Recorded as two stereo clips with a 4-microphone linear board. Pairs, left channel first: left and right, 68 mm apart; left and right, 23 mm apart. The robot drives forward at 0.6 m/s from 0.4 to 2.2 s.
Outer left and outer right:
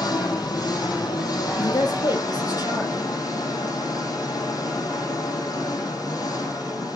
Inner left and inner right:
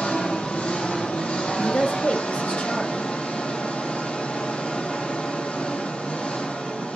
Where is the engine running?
75° left (ahead or behind), 4 m; by 7.0 s 60° left (ahead or behind), 4.5 m.